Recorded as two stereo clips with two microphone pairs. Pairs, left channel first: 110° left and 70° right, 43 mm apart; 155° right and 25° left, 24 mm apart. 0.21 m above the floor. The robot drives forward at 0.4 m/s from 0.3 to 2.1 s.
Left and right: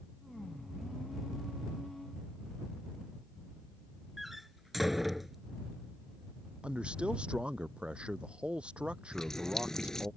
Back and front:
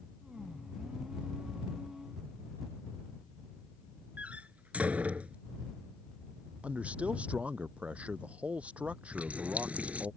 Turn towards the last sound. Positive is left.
turn(degrees=30)